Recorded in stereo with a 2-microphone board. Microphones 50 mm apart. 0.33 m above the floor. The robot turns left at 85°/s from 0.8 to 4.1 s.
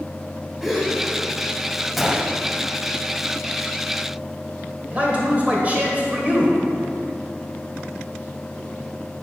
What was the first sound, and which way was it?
A gasp, 5° right (ahead or behind).